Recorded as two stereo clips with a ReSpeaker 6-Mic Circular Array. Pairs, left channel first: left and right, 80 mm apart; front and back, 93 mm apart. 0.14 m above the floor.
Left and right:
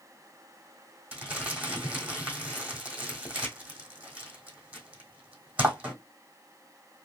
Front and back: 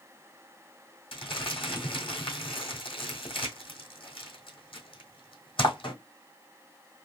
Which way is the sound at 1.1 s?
20° right.